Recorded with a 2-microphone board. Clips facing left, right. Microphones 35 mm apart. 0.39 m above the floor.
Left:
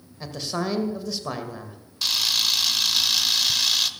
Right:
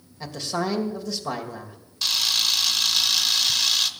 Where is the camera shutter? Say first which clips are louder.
Even; centre (ahead or behind), 0.8 m.